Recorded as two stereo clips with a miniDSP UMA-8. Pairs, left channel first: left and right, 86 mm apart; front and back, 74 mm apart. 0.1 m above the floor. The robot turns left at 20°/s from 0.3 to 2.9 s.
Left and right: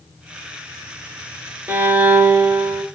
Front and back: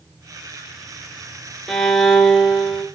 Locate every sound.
1.7 s a violin: 65° right, 1.2 m; by 2.9 s 90° right, 1.2 m